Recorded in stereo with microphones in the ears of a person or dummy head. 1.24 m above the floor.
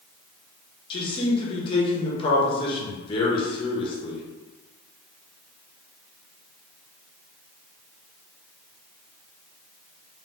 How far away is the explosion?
I don't hear an explosion.